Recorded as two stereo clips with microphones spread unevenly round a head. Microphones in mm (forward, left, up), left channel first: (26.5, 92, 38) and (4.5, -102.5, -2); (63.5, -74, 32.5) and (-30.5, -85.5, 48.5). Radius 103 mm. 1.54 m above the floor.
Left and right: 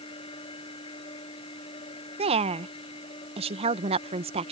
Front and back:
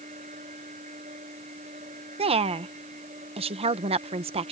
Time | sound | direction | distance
0.0 | a machine running | 150° left | ?
2.2 | a woman speaking | 160° right | ?